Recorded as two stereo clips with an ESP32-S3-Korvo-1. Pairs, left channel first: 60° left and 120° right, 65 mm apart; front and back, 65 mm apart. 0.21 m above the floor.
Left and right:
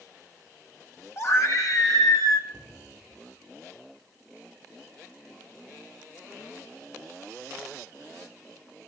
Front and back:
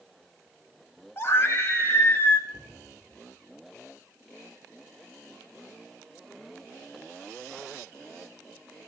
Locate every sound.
1.2 s a scream: 35° left, 1.6 m; by 2.4 s 55° left, 2.5 m
2.5 s a cupboard door: 130° left, 4.5 m